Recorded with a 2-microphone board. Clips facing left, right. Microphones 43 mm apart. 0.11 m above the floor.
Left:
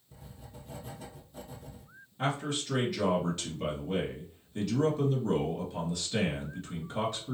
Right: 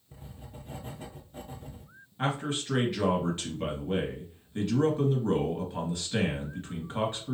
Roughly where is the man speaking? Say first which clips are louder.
Right 1 dB; right.